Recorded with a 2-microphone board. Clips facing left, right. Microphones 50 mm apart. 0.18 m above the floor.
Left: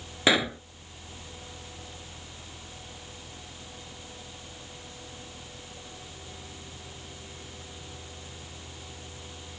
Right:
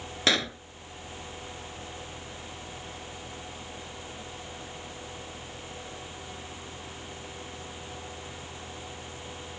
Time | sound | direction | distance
0.3 | a pop | 15° left (ahead or behind) | ?